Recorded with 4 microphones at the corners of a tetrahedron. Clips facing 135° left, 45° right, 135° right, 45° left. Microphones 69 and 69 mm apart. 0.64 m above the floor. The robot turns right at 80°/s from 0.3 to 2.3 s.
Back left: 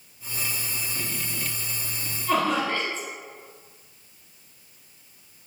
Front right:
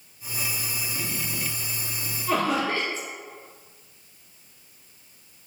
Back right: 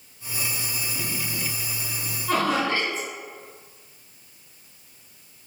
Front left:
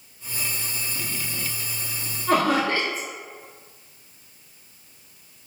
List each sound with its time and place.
2.3 s laughter: 35° left, 1.0 m